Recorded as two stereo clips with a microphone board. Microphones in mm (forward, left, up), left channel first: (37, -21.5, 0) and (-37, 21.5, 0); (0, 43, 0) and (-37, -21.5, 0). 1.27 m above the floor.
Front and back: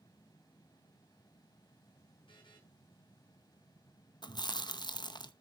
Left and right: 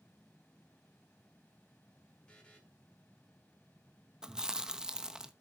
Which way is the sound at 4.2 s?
40° right.